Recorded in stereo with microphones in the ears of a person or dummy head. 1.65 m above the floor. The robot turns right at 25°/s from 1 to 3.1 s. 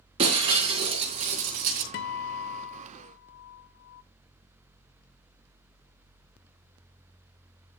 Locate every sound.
0.2 s breaking glass: 30° right (ahead or behind), 2.5 m; by 1.8 s 45° right (ahead or behind), 2.5 m
1.9 s a guitar: 40° left (ahead or behind), 0.6 m